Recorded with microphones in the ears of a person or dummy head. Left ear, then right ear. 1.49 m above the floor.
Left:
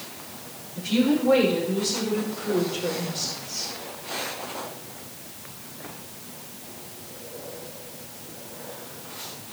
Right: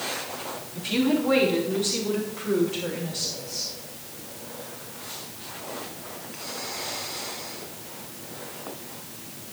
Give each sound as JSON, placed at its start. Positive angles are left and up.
{"t": 0.8, "sound": "a woman speaking", "side_deg": -20, "distance_m": 4.0}